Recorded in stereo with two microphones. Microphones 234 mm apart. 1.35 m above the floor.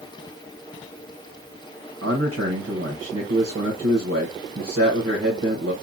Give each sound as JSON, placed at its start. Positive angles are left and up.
{"t": 2.0, "sound": "a man speaking", "side_deg": -75, "distance_m": 1.0}